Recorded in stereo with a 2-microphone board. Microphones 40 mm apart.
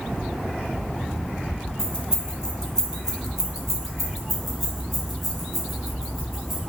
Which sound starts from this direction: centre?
Keys jangling, at 1.8 s.